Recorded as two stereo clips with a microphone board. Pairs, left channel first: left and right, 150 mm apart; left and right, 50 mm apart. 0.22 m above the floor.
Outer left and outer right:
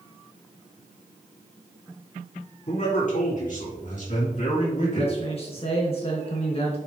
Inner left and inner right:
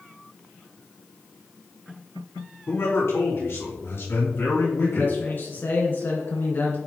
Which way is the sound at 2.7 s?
55° left (ahead or behind).